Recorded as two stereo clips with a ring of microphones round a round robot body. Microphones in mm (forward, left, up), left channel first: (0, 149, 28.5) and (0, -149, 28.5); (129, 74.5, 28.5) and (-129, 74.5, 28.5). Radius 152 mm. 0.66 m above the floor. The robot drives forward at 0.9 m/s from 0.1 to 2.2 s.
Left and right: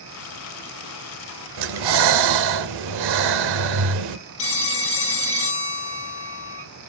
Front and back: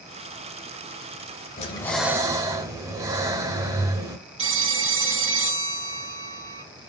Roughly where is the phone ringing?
Behind left.